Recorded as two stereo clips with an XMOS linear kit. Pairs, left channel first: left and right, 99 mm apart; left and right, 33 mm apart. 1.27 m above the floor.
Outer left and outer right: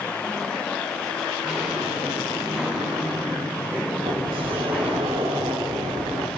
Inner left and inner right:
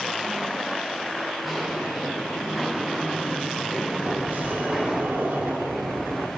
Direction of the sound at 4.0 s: 65° right (ahead or behind).